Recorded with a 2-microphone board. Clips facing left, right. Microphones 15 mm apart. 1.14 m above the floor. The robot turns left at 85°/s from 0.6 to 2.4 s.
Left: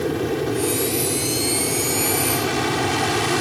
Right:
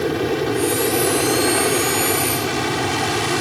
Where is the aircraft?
20° right; by 3.4 s 170° right.